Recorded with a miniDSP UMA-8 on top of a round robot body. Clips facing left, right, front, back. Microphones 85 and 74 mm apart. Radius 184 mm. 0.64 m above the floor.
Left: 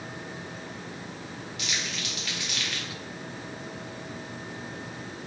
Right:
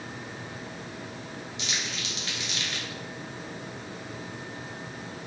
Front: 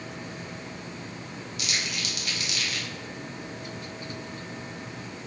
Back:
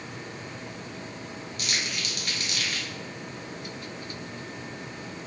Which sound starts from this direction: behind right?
Crumpling, at 1.6 s.